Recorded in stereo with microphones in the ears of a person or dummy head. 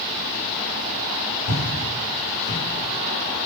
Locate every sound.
1.5 s footsteps: 30° left (ahead or behind), 1.9 m; by 2.6 s 40° left (ahead or behind), 2 m